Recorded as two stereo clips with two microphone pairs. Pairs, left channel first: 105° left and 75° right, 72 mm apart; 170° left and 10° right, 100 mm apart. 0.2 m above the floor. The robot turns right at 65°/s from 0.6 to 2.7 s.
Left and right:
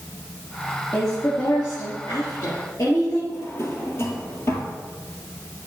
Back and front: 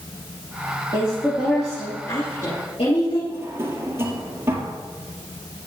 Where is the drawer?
55° left, 1.9 m.